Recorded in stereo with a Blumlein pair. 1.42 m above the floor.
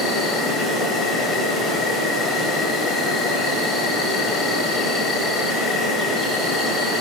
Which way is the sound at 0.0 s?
15° left.